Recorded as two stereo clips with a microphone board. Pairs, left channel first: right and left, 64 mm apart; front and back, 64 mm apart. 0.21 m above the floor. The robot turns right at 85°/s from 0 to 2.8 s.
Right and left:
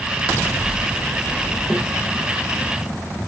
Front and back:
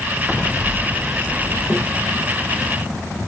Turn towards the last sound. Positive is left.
turn(degrees=-105)